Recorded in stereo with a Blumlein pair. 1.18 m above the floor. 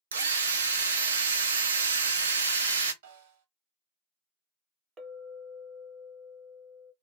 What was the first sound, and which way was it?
A drill, 70° right.